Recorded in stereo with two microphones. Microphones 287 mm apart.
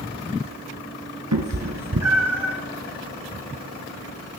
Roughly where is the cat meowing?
Right.